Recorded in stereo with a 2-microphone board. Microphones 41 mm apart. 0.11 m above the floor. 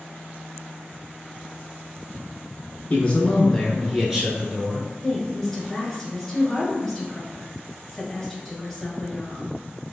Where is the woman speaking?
10° left (ahead or behind), 1.4 m.